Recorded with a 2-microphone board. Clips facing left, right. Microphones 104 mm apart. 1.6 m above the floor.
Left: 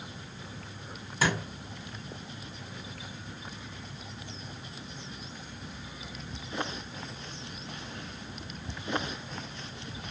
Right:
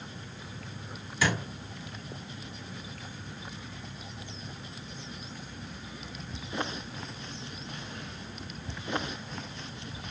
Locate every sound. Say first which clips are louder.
1.2 s a thud: even; 40° left (ahead or behind), 1.8 m